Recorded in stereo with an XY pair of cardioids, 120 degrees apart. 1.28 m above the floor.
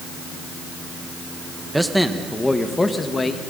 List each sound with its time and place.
1.7 s a man speaking: 5° right, 1.4 m; by 3.4 s 25° left, 1.9 m